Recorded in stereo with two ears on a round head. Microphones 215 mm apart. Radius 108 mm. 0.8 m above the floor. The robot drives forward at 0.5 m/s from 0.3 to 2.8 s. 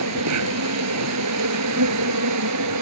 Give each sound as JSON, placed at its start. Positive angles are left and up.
{"t": 0.0, "sound": "an insect", "side_deg": -75}